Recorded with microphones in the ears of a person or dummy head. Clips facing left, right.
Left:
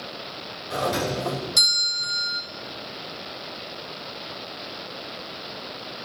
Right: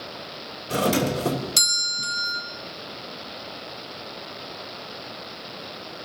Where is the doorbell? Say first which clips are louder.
Right 3 dB; 40° right (ahead or behind), 2.5 m.